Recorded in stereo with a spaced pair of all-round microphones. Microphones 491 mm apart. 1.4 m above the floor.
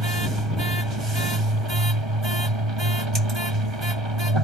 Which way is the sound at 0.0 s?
75° right (ahead or behind).